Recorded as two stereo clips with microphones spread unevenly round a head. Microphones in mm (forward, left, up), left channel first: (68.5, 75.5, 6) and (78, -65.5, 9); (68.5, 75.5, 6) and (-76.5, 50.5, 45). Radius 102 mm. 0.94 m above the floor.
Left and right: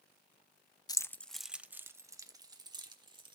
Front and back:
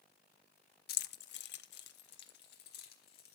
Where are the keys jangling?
30° left, 0.6 m; by 3.4 s 30° right, 1.7 m.